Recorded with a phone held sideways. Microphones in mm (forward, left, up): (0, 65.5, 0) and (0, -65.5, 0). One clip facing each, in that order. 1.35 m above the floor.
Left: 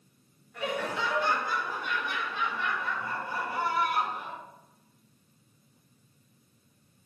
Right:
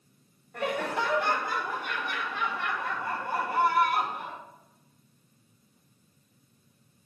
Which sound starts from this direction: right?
Laughter, at 0.5 s.